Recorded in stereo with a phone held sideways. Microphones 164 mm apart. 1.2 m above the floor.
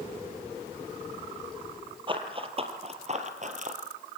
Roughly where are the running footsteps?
Right.